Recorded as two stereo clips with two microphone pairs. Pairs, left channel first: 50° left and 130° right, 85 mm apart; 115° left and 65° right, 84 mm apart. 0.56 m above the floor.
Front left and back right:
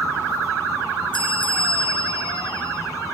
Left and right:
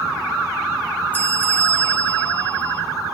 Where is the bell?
45° left, 6.5 m.